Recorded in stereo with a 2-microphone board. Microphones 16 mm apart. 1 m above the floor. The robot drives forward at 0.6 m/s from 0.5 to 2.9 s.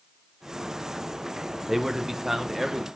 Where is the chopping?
I don't hear chopping.